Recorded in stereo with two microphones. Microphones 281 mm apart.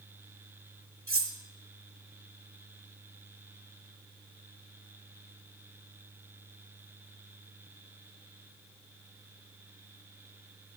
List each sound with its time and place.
1.1 s cutlery clinking: 50° right (ahead or behind), 0.9 m